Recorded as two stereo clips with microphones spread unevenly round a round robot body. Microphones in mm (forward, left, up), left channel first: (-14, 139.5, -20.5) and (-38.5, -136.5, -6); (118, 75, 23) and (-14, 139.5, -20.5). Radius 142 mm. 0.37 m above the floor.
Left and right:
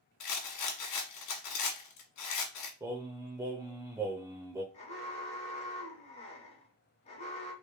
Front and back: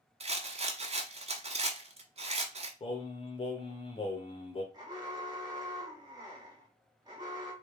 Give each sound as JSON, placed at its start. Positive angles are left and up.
{"t": 0.2, "sound": "a rattle", "azimuth_deg": 110, "distance_m": 1.2}
{"t": 2.8, "sound": "singing", "azimuth_deg": -30, "distance_m": 0.9}
{"t": 4.7, "sound": "an alarm", "azimuth_deg": 135, "distance_m": 1.8}